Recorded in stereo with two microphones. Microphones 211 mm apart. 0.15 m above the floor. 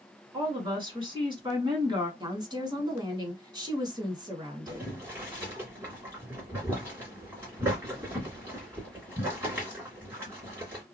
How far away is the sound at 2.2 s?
About 1.2 m.